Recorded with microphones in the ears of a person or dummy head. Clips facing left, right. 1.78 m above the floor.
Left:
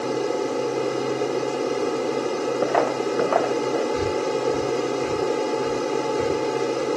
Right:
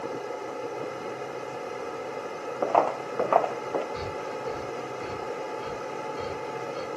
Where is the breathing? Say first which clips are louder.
Left 11 dB; 25° left (ahead or behind).